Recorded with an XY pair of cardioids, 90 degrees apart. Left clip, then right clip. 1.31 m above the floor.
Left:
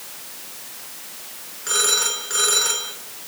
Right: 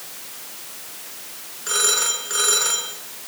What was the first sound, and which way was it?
A phone ringing, straight ahead.